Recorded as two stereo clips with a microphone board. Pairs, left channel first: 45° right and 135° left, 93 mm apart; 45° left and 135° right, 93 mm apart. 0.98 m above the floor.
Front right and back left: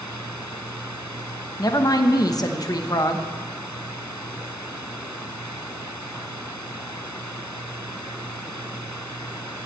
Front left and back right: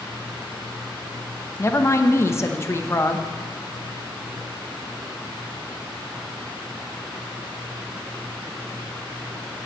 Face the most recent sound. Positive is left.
turn(degrees=-10)